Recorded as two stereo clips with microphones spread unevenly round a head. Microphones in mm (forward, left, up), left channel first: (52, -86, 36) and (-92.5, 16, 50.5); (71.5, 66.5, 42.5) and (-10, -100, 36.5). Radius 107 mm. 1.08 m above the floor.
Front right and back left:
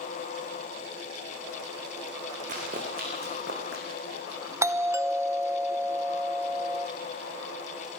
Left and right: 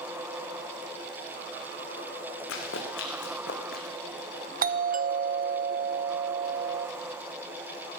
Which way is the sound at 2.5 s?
90° left.